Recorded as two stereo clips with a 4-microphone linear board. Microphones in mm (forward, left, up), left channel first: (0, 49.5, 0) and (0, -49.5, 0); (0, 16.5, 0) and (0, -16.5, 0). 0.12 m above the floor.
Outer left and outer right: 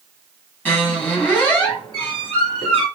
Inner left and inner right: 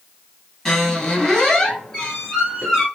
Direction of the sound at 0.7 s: 20° left (ahead or behind).